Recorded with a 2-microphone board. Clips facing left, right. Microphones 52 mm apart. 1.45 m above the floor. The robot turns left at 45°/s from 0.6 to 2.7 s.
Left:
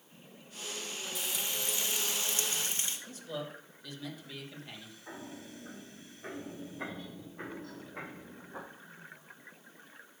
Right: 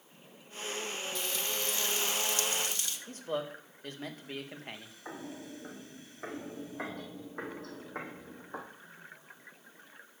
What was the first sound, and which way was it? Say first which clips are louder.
Frying: even; 165° left.